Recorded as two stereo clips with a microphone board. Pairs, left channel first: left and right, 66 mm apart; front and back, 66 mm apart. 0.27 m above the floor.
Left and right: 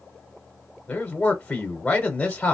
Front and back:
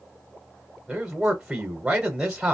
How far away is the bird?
No bird in this recording.